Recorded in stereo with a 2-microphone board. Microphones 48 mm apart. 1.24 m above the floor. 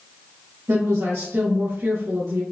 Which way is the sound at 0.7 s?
75° right (ahead or behind).